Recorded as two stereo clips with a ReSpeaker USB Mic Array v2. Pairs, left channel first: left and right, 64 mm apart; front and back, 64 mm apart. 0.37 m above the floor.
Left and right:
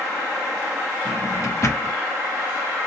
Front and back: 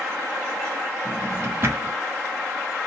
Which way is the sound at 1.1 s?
130° left.